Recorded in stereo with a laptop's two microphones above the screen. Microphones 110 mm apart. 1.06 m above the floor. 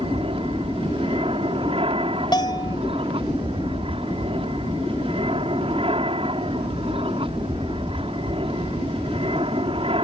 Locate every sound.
0.0 s an aircraft: 60° right (ahead or behind)
2.3 s a bell: 45° left (ahead or behind)